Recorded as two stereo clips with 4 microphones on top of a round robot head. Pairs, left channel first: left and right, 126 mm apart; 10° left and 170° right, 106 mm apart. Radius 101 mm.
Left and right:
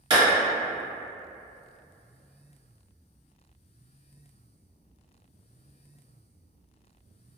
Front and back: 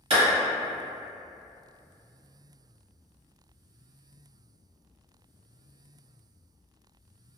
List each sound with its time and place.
0.1 s a clap: 140° right, 1.5 m